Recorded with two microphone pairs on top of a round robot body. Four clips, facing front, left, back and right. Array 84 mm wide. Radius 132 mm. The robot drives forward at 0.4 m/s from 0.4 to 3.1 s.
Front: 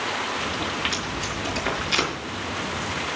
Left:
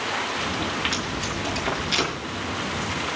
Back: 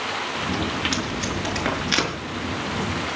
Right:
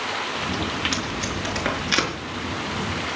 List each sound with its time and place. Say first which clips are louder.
0.9 s tape being pulled: right 1 dB, back 3 dB; 110° right, 5 m; by 2.1 s 115° right, 5.5 m